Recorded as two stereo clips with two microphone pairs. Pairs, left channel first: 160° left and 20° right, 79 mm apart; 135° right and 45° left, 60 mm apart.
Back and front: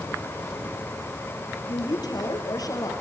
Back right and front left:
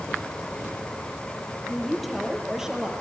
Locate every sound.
1.7 s a woman speaking: 140° left, 5 m; by 2.9 s 120° left, 4.5 m